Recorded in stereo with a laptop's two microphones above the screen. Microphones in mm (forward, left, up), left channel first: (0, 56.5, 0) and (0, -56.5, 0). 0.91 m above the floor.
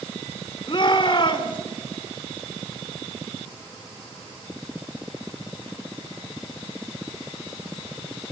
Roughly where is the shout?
Left.